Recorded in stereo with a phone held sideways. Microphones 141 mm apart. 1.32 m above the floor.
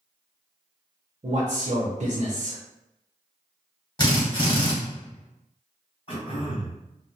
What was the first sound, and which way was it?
A man speaking, 50° right (ahead or behind).